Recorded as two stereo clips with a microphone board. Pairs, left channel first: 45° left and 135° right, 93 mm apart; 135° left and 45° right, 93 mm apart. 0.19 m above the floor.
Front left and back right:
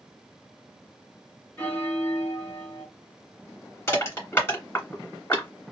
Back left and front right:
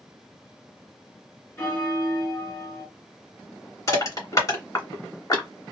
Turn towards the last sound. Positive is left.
turn(degrees=100)